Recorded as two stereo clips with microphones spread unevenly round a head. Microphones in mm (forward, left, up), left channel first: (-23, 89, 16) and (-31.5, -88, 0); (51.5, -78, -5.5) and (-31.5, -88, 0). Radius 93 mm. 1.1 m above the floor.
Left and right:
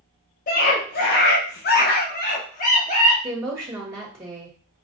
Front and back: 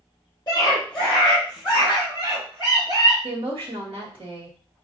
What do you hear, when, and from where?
0.5 s a scream: 55° left, 0.9 m; by 3.1 s 135° left, 1.5 m
3.2 s a woman speaking: 165° right, 1.5 m